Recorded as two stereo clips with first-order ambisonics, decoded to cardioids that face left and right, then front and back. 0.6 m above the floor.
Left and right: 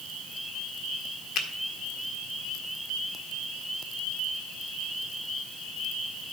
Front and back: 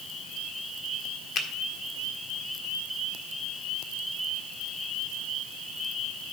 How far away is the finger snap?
About 1.4 m.